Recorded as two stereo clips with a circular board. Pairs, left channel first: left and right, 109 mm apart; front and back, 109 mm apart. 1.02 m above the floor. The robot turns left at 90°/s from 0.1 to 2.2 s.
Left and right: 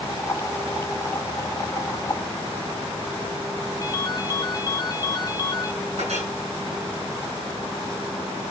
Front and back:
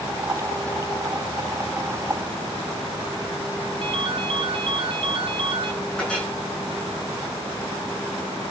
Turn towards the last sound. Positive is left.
turn(degrees=-80)